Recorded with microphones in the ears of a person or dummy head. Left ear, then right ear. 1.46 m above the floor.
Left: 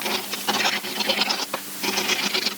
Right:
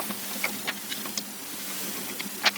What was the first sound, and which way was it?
Only background noise.